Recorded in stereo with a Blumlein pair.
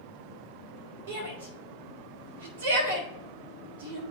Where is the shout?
55° right, 2.0 m.